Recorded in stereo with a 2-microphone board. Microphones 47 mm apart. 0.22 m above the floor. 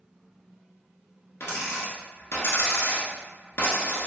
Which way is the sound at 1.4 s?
75° left (ahead or behind).